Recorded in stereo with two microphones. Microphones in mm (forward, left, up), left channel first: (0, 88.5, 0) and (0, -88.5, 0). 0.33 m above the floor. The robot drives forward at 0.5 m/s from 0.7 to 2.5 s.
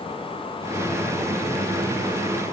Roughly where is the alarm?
No alarm in this recording.